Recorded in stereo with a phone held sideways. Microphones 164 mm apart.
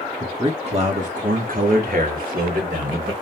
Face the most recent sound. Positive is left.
turn(degrees=-55)  # may be behind; listen again after turning